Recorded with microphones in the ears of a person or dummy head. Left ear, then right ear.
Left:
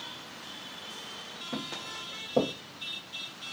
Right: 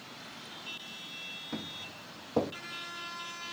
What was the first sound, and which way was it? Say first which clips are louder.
Footsteps: left 4 dB; 20° right (ahead or behind).